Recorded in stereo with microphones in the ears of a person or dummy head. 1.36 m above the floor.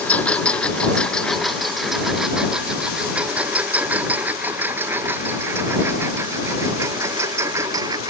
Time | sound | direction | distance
0.0 | a lawn mower | 10° left (ahead or behind) | ?